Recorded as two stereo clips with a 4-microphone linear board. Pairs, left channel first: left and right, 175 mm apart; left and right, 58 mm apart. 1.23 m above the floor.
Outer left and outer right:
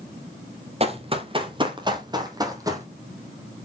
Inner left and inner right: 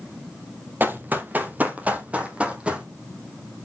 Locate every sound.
0.8 s running footsteps: 35° right (ahead or behind), 1.7 m; by 2.9 s 20° right (ahead or behind), 2.5 m